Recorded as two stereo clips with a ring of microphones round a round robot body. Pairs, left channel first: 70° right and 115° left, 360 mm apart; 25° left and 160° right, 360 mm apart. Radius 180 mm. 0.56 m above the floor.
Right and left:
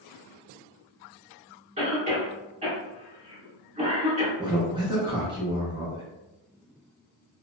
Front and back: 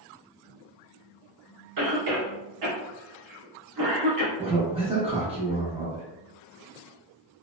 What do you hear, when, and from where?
1.8 s a cough: straight behind, 1.1 m
4.4 s a man speaking: 165° left, 0.7 m